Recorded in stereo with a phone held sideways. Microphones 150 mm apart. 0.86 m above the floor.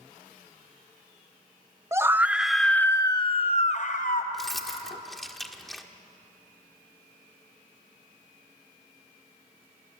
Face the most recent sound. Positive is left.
turn(degrees=0)  # may be behind; listen again after turning